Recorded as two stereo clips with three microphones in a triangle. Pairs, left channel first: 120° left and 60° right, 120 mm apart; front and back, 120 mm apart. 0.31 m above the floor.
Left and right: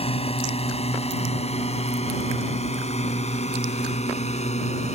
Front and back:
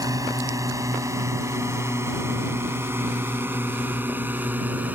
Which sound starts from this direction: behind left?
A drone, at 0.0 s.